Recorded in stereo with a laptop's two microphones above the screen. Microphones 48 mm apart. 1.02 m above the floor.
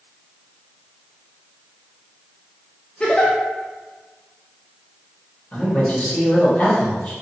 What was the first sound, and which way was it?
A giggle, 20° left (ahead or behind).